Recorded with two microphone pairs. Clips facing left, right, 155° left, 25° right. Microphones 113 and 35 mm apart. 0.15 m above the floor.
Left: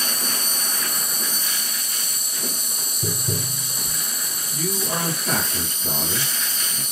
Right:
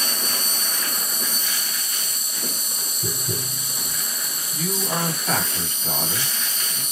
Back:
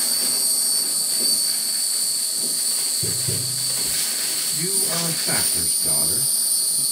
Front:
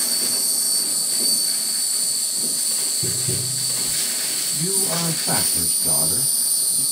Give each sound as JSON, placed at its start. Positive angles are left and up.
{"t": 0.0, "sound": "an insect", "azimuth_deg": 100, "distance_m": 1.7}
{"t": 3.0, "sound": "tapping", "azimuth_deg": 115, "distance_m": 2.0}
{"t": 4.5, "sound": "a man speaking", "azimuth_deg": 105, "distance_m": 2.5}